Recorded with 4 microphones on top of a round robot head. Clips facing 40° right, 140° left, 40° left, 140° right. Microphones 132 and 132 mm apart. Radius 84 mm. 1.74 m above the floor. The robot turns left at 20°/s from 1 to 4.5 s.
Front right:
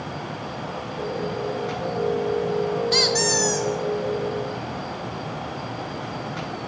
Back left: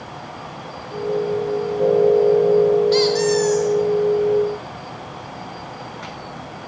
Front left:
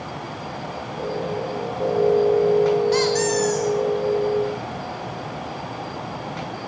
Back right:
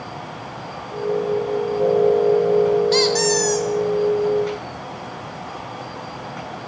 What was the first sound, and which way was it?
A squeak, 75° right.